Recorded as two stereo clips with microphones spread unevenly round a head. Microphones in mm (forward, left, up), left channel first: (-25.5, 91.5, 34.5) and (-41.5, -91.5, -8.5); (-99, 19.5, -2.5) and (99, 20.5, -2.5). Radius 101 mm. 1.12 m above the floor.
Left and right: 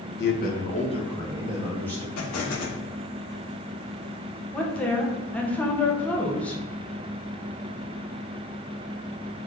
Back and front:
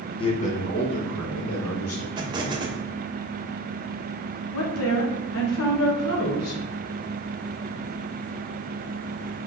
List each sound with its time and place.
0.2 s a man speaking: 115° left, 1.1 m; by 2.1 s 170° left, 2 m
2.2 s an explosion: 70° left, 0.9 m
4.5 s a woman speaking: 170° left, 1.0 m